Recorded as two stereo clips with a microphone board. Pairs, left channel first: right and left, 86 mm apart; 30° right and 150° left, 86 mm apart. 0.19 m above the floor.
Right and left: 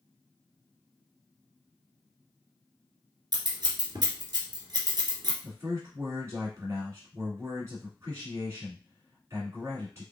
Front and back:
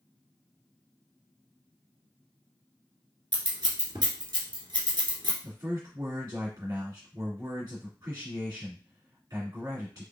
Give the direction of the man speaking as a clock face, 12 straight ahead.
7 o'clock.